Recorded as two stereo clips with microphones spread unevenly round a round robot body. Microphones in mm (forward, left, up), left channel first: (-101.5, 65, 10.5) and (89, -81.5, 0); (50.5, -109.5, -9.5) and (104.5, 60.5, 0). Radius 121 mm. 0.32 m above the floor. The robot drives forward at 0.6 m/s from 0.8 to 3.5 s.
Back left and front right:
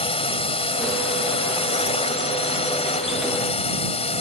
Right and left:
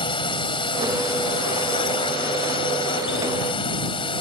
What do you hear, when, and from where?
0.0 s a drone: 160° right